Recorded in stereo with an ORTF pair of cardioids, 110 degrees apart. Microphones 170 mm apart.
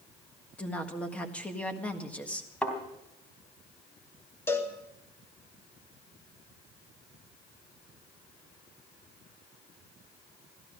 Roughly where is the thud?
Ahead.